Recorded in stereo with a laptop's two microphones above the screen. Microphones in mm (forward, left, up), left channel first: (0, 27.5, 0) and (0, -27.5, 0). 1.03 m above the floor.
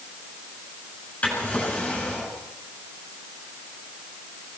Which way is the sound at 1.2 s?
25° left (ahead or behind).